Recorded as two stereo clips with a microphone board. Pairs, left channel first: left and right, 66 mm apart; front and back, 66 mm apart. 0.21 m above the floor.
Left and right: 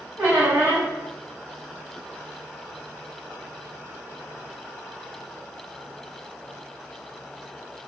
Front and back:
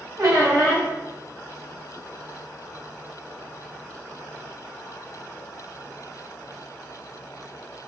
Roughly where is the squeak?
Behind right.